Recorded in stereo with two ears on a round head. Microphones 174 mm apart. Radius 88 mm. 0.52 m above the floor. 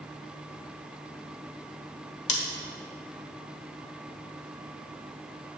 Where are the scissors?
35° left (ahead or behind), 1.6 m.